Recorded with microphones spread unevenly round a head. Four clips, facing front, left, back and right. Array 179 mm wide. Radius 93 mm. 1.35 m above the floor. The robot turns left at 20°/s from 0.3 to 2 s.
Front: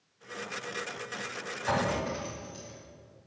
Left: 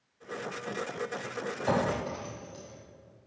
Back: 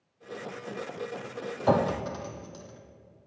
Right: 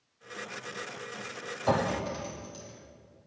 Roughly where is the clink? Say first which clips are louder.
Right 1 dB, back 5 dB; behind.